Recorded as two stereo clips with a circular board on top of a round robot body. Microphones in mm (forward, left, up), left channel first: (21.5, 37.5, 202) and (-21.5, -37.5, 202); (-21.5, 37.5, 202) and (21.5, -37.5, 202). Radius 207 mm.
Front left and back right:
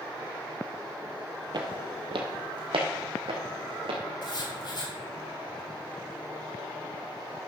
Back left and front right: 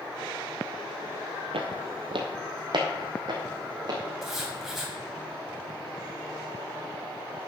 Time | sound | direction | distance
1.5 | footsteps | 80° right | 0.9 m
4.2 | writing | 25° left | 3 m